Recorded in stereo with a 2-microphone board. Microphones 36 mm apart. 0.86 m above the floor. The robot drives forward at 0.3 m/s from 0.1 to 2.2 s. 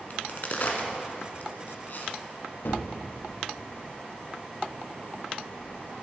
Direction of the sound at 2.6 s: 65° left (ahead or behind).